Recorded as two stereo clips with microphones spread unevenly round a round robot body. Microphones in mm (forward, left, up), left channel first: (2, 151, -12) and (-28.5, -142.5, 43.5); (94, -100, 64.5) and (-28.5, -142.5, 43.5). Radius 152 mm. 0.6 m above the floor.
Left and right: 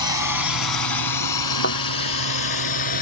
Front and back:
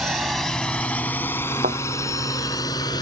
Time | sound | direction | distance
0.0 | a drone | 110° left | ?
1.6 | a thud | 140° left | ?